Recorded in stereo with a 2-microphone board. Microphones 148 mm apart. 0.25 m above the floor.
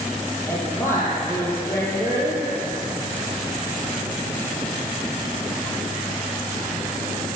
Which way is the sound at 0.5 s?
15° left (ahead or behind).